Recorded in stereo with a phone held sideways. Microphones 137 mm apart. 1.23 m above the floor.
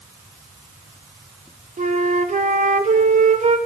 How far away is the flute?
About 0.5 m.